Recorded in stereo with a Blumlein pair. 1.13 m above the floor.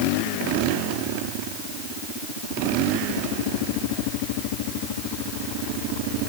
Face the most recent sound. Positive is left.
No sound to turn to.